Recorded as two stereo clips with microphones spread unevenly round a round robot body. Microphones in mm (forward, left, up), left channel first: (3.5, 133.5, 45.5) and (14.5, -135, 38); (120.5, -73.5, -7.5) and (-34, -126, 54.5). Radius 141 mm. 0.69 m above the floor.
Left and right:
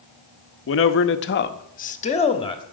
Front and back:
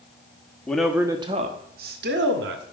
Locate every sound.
0.7 s a man speaking: 75° left, 0.8 m; by 2.6 s 165° left, 1.4 m